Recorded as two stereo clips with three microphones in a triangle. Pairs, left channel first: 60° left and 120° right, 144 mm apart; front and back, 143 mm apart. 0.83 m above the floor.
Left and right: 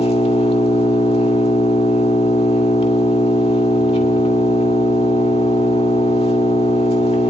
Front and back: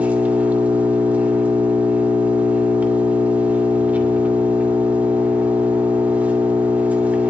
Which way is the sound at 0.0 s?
100° left.